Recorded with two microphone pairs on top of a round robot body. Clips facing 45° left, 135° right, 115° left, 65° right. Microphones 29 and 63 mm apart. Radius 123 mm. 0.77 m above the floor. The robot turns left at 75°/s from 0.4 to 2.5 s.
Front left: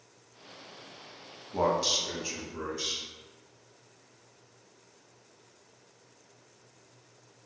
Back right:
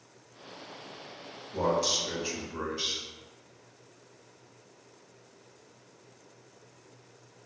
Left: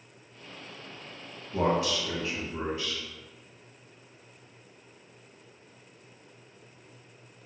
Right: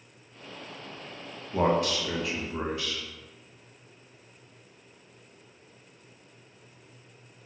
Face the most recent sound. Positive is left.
turn(degrees=-75)